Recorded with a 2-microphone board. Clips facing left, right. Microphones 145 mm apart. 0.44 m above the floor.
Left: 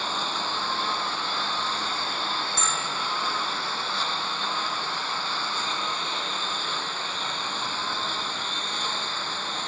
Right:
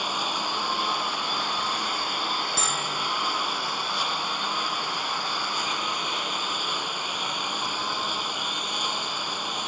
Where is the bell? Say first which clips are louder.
Even; 35° right (ahead or behind).